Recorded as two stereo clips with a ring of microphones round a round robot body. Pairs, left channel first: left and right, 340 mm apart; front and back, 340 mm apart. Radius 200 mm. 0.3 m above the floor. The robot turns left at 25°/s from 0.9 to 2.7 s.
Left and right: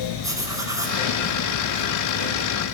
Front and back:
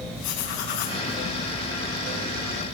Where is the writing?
10° right, 4.5 m.